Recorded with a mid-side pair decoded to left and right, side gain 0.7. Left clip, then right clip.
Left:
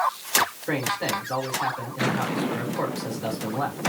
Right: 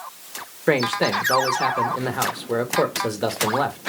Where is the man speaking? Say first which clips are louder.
Right 6 dB; 65° right, 1.7 m.